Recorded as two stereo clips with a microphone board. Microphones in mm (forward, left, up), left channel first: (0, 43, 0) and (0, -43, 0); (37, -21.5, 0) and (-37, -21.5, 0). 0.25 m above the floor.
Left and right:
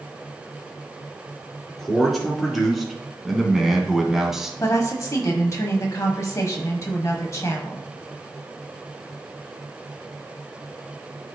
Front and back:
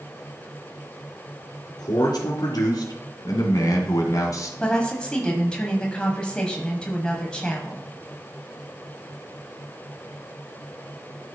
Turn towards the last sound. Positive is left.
turn(degrees=70)